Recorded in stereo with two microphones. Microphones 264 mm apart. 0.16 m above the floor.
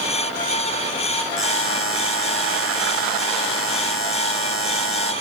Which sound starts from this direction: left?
A buzzer, at 1.4 s.